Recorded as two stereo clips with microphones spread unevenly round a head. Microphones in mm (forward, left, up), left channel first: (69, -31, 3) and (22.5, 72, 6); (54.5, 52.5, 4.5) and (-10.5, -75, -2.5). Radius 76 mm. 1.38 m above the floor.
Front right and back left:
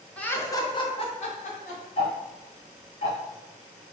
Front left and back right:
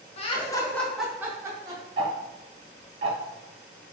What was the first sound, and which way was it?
Laughter, 15° left.